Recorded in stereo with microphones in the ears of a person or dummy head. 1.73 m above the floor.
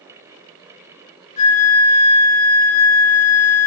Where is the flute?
50° left (ahead or behind), 1.6 m.